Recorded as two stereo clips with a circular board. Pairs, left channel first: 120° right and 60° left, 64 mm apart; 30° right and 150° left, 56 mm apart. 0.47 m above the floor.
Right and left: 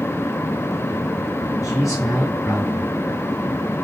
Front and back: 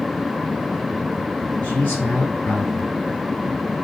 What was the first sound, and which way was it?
A man speaking, 90° right.